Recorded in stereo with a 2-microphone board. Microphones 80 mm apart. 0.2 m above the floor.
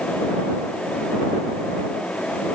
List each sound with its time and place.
Only background noise.